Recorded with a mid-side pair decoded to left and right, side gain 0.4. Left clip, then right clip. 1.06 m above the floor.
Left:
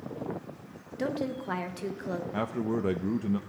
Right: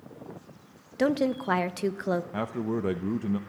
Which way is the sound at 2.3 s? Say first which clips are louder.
Even; 10° right.